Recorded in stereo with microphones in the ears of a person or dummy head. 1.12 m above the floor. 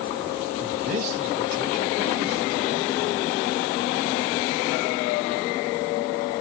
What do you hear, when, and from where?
0.6 s a man speaking: 50° right (ahead or behind), 5 m; by 3.0 s 60° right (ahead or behind), 4 m